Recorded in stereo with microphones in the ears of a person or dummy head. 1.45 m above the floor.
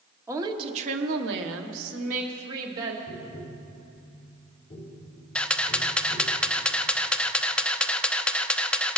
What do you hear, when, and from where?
0.3 s a woman speaking: 15° right (ahead or behind), 1.1 m; by 3.0 s 75° right (ahead or behind), 2 m
3.1 s tapping: 35° left (ahead or behind), 2 m
5.3 s a camera shutter: 5° left (ahead or behind), 0.6 m